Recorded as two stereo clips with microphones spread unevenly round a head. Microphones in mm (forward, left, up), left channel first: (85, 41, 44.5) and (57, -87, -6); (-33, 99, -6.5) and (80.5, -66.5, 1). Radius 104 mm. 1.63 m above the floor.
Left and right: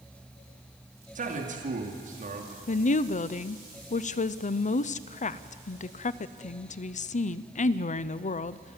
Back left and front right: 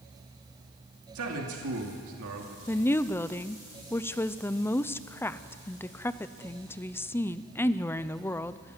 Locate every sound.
1.1 s a man speaking: 75° right, 2.5 m
2.7 s a woman speaking: 45° left, 0.6 m